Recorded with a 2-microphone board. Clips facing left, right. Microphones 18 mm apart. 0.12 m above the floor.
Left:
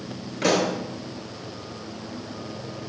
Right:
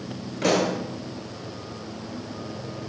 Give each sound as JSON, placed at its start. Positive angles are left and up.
{"t": 0.4, "sound": "a pop", "side_deg": 20, "distance_m": 0.9}